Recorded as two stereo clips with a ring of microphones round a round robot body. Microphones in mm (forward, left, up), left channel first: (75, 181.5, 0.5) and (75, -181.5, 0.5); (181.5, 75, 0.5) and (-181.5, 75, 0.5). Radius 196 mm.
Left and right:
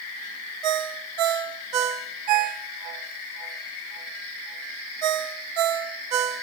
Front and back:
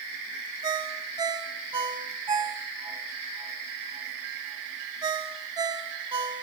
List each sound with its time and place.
0.6 s a ringtone: 100° right, 0.9 m